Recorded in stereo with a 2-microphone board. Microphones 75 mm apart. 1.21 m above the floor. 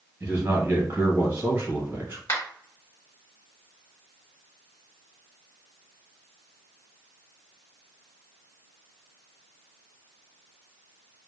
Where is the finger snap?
35° left (ahead or behind), 1.3 m.